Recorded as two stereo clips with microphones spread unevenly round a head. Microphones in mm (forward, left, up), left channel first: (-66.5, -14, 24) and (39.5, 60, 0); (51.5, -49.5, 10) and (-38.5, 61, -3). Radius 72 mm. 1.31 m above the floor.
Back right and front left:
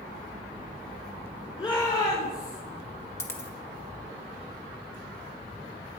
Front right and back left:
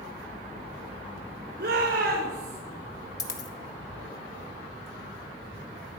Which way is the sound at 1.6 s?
165° left.